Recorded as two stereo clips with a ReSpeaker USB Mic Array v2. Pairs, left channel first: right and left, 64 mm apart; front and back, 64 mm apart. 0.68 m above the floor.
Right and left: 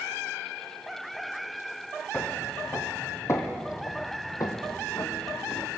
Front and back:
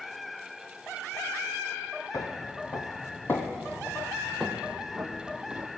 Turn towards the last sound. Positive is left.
turn(degrees=-115)